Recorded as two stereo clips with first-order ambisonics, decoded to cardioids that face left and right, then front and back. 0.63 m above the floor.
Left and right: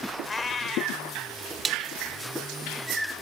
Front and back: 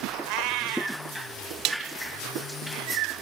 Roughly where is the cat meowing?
Behind.